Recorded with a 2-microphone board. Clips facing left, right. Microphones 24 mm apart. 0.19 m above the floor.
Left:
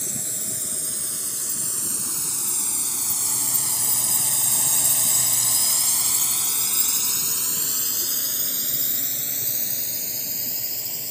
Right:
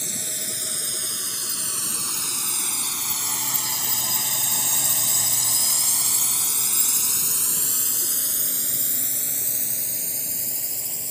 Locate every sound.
0.0 s a drone: 40° right (ahead or behind); by 11.1 s 30° left (ahead or behind)